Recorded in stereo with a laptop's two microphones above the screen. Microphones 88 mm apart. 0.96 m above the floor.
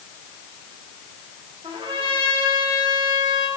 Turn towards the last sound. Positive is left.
turn(degrees=-70)  # may be behind; listen again after turning